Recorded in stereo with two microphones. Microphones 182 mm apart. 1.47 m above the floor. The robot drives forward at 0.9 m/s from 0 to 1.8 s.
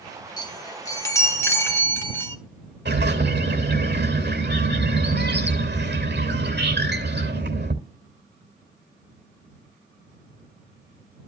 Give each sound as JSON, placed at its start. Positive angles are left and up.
{"t": 0.4, "sound": "a chime", "side_deg": 20, "distance_m": 1.0}
{"t": 2.9, "sound": "a bird", "side_deg": -65, "distance_m": 2.5}